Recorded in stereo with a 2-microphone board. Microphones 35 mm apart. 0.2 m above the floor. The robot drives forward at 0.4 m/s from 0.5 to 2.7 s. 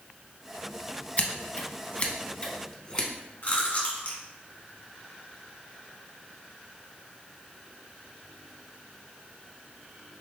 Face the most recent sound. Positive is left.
turn(degrees=50)  # may be behind; listen again after turning